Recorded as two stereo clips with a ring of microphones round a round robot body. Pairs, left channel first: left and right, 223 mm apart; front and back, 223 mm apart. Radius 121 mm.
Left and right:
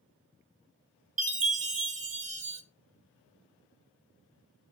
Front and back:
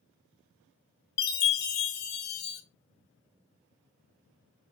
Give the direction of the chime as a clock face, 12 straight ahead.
1 o'clock.